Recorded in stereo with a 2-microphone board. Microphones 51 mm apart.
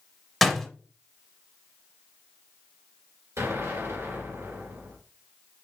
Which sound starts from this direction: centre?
A door slam, at 0.4 s.